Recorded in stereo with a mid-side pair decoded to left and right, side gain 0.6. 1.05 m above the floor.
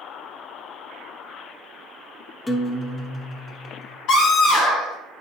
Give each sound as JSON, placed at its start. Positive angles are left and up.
{"t": 2.5, "sound": "a guitar", "azimuth_deg": 15, "distance_m": 0.8}
{"t": 4.1, "sound": "a scream", "azimuth_deg": 65, "distance_m": 2.0}